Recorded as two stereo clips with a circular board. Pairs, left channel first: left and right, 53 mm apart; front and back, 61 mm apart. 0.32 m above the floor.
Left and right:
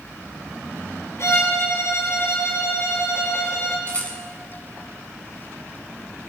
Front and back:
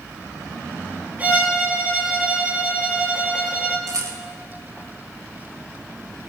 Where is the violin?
120° left, 3.5 m.